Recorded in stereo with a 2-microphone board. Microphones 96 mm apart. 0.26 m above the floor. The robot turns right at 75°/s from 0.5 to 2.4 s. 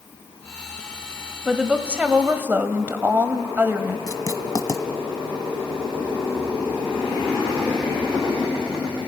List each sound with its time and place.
1.4 s a woman speaking: 5° right (ahead or behind), 1.3 m; by 4.0 s 20° right (ahead or behind), 1.3 m
4.1 s writing: 40° left (ahead or behind), 1.4 m